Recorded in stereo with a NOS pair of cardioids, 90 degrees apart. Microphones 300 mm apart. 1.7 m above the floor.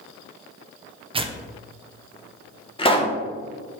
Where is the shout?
I don't hear a shout.